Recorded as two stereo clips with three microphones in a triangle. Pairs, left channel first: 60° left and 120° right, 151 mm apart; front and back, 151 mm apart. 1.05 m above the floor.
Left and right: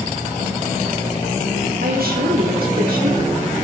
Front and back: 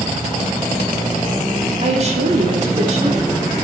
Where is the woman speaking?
135° right, 4 m.